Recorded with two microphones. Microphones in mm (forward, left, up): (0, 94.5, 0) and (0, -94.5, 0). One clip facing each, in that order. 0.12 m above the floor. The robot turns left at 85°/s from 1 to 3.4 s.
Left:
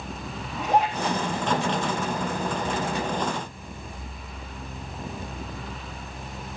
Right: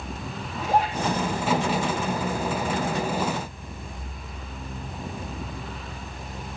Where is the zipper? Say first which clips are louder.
Left 1 dB; 5° right (ahead or behind), 6 m.